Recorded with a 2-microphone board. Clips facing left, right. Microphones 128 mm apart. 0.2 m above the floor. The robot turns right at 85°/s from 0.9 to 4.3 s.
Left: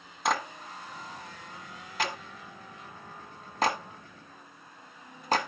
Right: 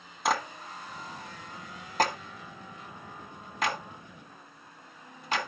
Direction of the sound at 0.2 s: Centre (ahead or behind).